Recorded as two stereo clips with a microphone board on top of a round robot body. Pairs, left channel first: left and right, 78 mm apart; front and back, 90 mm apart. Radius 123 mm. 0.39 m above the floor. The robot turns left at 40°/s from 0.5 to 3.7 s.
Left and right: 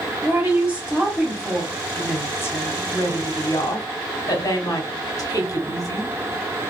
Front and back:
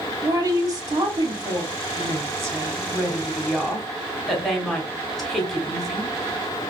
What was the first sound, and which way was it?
A woman speaking, 145° right.